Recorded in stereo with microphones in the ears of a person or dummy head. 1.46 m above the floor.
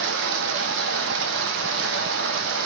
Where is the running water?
75° right (ahead or behind), 0.7 m.